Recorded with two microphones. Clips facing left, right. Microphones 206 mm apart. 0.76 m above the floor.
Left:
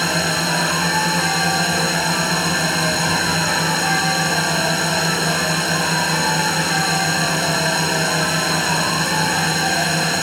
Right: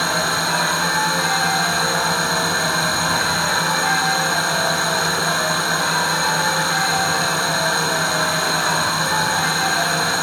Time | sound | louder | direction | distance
0.0 | a drone | left 2 dB | 20° left (ahead or behind) | ?